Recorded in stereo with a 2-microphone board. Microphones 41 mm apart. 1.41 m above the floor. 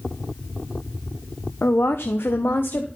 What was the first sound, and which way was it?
A woman speaking, 65° left (ahead or behind).